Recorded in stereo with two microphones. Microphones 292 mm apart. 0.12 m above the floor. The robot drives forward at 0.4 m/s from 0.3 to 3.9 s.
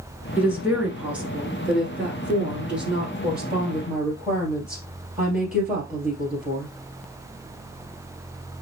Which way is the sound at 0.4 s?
5° right (ahead or behind).